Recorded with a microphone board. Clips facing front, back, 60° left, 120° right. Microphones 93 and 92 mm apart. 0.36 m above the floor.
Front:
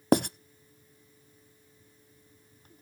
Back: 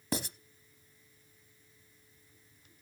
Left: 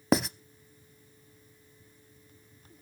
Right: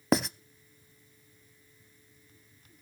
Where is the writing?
30° right, 0.5 m.